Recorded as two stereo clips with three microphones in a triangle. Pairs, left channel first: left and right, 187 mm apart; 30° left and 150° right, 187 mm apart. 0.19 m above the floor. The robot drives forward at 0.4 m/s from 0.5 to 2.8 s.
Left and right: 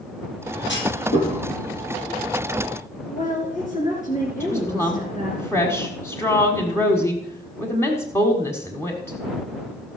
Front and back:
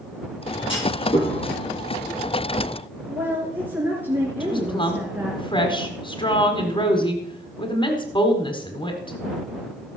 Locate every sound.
0.7 s a clunk: 90° left, 4.5 m; by 1.3 s 95° left, 4.5 m
3.1 s a woman speaking: 130° left, 3 m
4.4 s a woman speaking: 35° left, 1.4 m